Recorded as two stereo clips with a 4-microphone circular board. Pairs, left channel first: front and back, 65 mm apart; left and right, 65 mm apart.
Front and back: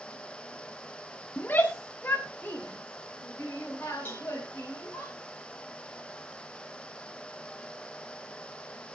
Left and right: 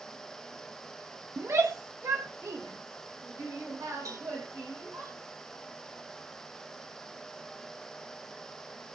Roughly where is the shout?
Ahead right.